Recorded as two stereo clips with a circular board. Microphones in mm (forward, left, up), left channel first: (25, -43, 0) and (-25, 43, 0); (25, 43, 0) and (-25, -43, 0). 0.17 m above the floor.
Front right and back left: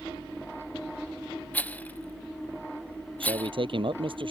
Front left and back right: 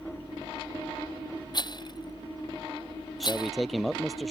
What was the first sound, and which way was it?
A rattle, 15° left.